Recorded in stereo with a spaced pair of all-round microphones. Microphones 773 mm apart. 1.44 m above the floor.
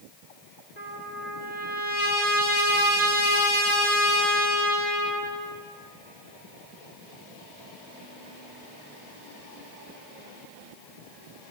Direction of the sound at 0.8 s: 60° left (ahead or behind).